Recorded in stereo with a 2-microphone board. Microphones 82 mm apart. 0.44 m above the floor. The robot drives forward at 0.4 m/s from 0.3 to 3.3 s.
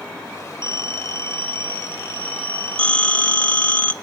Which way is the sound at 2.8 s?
15° left (ahead or behind).